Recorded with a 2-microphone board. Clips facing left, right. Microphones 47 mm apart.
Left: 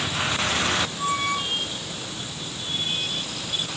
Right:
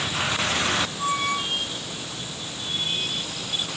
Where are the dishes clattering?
I don't hear dishes clattering.